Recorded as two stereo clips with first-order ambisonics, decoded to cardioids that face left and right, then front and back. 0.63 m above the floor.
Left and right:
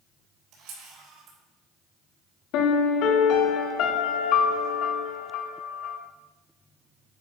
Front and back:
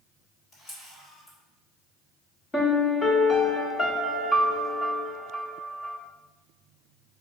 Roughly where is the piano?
Left.